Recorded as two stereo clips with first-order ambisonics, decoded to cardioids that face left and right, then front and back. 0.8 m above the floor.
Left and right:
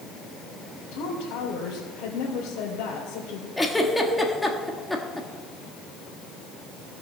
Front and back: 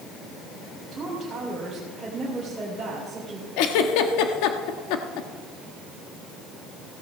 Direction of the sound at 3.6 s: 5° left.